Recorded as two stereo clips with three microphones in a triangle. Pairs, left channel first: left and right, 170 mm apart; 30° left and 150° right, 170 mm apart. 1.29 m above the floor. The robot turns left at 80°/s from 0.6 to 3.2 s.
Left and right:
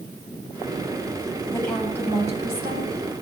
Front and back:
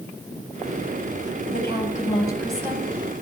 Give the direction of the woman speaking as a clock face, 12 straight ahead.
11 o'clock.